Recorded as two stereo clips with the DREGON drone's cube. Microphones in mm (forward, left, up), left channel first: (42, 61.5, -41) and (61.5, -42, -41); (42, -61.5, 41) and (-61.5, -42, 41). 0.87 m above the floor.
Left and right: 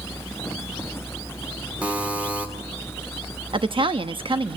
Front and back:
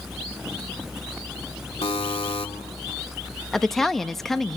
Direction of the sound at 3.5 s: 95° right.